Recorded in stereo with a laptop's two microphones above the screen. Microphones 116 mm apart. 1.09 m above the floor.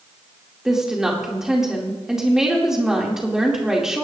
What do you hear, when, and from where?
0.7 s a woman speaking: 5° right (ahead or behind), 2.5 m